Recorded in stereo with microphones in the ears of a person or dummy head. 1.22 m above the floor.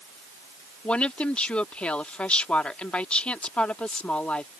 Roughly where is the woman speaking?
Centre.